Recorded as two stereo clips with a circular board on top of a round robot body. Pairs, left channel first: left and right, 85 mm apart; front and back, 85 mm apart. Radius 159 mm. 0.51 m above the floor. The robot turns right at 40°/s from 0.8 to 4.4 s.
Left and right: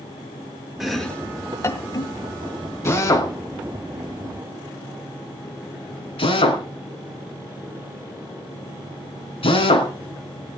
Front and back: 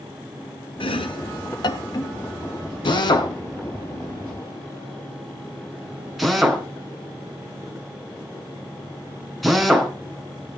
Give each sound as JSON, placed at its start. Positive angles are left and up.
{"t": 0.8, "sound": "chopping", "azimuth_deg": -5, "distance_m": 2.5}
{"t": 2.9, "sound": "a drill", "azimuth_deg": 25, "distance_m": 3.5}